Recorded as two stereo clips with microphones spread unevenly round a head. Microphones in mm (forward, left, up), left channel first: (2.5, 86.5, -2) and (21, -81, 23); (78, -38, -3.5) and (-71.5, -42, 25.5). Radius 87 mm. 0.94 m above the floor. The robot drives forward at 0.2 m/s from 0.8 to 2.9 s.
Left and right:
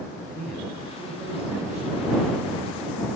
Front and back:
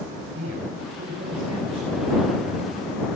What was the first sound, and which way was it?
A man speaking, 170° left.